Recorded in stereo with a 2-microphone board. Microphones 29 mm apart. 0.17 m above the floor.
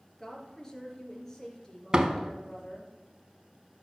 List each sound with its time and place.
0.2 s a woman speaking: 15° left (ahead or behind), 3 m
1.9 s a door slam: 30° right (ahead or behind), 0.8 m